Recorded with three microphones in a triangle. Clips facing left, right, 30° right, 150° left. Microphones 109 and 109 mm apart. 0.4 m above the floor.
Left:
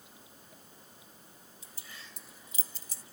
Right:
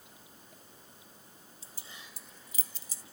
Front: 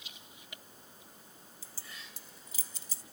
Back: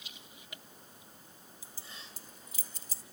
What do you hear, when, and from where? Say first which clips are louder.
1.6 s keys jangling: even, even; 140° right, 1.5 m; by 3.0 s 110° left, 1.4 m